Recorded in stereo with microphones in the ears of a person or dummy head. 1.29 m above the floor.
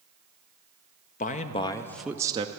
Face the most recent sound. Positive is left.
turn(degrees=-25)  # may be behind; listen again after turning